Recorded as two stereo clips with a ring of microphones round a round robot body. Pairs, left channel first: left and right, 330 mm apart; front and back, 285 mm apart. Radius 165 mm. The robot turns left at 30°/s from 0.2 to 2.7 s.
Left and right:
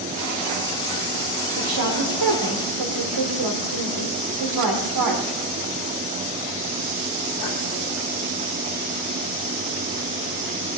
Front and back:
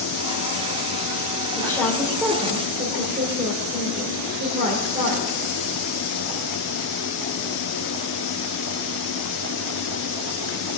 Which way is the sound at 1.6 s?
75° right.